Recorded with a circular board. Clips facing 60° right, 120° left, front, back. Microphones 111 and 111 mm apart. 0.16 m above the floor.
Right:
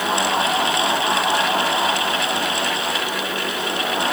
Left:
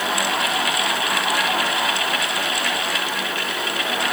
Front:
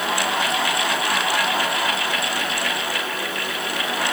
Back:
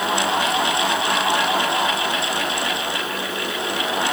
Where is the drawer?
I don't hear a drawer.